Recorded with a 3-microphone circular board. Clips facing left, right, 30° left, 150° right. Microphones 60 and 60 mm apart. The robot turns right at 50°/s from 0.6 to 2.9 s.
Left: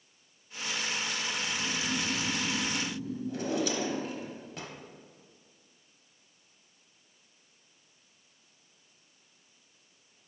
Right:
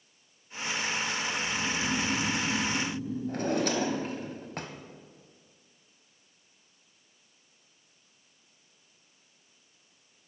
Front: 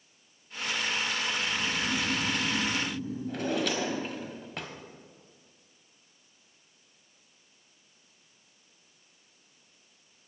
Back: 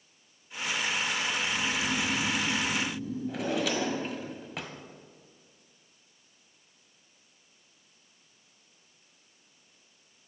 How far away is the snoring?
About 2.5 m.